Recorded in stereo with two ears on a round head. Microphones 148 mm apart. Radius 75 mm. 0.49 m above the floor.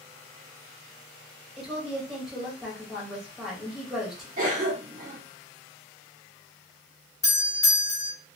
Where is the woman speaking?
Centre (ahead or behind), 1.2 m.